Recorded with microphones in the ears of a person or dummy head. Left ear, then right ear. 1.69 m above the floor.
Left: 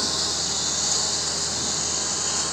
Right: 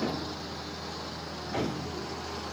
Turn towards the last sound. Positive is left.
turn(degrees=65)  # may be behind; listen again after turning